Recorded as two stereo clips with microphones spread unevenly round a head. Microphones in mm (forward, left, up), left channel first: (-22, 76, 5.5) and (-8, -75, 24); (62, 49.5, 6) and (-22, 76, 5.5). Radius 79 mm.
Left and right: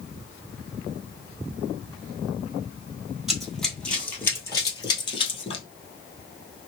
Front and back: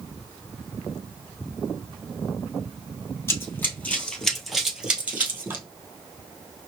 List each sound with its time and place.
3.3 s running footsteps: 15° right, 1.3 m; by 5.6 s 130° left, 1.4 m